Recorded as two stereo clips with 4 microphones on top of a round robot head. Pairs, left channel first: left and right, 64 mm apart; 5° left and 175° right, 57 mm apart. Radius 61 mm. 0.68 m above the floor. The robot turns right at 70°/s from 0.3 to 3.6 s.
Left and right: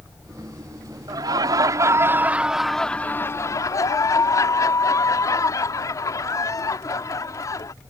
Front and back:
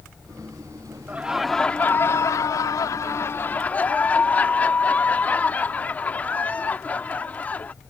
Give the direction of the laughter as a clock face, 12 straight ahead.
4 o'clock.